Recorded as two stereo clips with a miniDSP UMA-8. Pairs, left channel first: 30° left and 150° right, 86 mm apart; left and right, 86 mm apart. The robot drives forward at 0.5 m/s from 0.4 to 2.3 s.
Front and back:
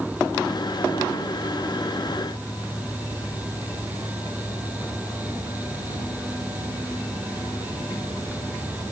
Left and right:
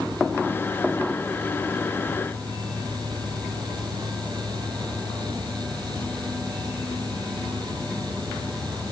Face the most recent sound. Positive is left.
No sound to turn to.